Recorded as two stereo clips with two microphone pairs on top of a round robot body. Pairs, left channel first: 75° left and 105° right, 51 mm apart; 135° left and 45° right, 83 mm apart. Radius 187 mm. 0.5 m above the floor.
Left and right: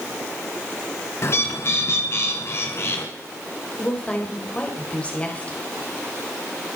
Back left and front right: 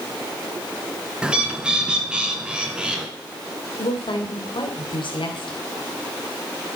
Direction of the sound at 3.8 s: 145° left.